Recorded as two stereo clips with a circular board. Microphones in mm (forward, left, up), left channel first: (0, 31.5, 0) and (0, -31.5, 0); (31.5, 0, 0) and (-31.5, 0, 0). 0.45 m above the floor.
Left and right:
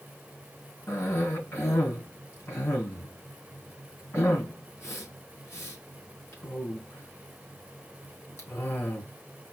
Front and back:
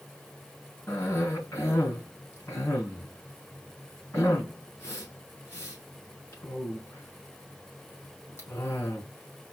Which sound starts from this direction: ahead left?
A cough, at 0.9 s.